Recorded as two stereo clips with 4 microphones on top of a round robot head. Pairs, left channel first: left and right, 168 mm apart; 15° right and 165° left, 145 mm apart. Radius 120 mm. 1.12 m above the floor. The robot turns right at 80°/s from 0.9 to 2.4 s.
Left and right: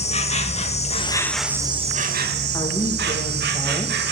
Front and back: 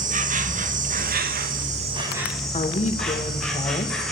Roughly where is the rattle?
I don't hear a rattle.